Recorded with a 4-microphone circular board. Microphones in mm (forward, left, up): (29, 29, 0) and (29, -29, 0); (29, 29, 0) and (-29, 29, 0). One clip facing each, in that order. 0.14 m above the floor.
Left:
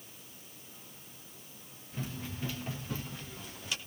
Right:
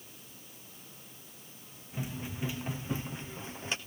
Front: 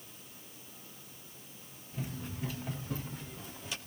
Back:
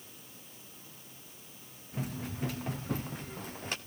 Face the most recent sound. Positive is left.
turn(degrees=-145)